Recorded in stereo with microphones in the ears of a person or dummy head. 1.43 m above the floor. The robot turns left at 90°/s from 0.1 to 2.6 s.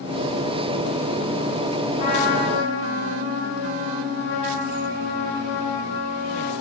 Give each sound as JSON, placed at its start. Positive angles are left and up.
{"t": 2.0, "sound": "a trumpet", "azimuth_deg": 135, "distance_m": 1.1}